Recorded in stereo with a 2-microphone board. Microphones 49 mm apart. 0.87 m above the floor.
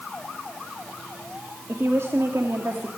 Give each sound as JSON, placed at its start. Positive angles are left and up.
{"t": 1.7, "sound": "a woman speaking", "side_deg": -60, "distance_m": 2.0}